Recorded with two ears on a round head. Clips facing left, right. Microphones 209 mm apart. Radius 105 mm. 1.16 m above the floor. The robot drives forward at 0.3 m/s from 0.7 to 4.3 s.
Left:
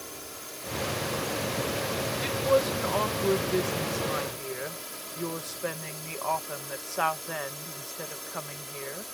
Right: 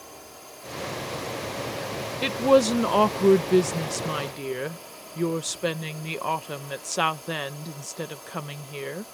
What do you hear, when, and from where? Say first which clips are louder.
0.0 s a drone: left 2 dB; 25° left (ahead or behind)
2.2 s a woman speaking: right 6 dB; 65° right (ahead or behind); by 9.0 s 50° right (ahead or behind)